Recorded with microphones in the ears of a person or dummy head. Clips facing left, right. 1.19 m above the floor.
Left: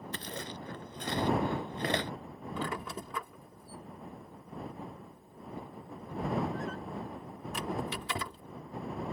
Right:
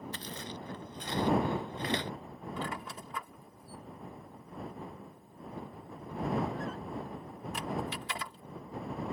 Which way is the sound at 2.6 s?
65° left (ahead or behind).